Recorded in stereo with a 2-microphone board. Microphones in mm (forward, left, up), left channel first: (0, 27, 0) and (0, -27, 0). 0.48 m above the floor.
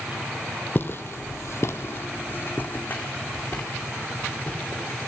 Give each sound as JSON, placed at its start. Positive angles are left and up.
{"t": 0.8, "sound": "footsteps", "side_deg": 40, "distance_m": 0.9}